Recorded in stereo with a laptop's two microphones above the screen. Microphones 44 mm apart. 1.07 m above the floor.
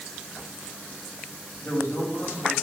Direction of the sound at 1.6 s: 50° left (ahead or behind).